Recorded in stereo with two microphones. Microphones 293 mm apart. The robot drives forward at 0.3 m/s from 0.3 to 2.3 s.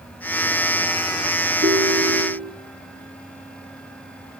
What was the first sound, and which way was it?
A ringtone, 35° right (ahead or behind).